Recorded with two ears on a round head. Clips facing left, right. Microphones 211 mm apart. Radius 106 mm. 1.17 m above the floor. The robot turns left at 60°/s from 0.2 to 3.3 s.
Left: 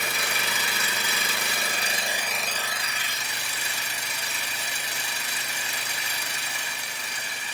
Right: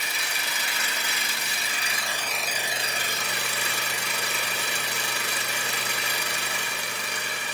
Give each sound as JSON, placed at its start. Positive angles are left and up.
{"t": 0.0, "sound": "an engine running", "azimuth_deg": 130, "distance_m": 2.5}